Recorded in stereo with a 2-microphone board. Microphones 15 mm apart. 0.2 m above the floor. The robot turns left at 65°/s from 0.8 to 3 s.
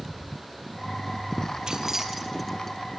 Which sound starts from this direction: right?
Keys jangling, at 1.7 s.